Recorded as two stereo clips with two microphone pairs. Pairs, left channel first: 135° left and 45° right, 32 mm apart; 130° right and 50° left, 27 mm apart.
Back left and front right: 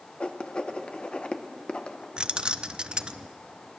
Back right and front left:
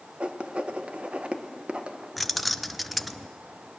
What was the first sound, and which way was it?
Writing, 85° left.